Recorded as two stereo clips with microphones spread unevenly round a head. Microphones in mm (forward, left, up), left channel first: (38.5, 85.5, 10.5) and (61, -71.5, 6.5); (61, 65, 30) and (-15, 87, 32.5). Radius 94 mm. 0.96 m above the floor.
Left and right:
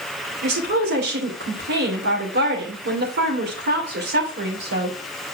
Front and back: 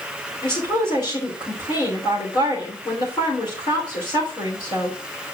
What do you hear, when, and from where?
0.4 s a woman speaking: 70° right, 3 m